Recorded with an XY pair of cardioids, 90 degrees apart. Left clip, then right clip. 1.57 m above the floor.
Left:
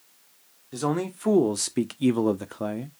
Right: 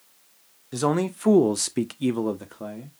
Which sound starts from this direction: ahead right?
A man speaking, at 0.7 s.